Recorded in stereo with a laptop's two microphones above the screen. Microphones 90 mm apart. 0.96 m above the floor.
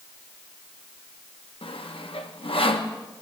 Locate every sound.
1.6 s sawing: 80° left, 1.0 m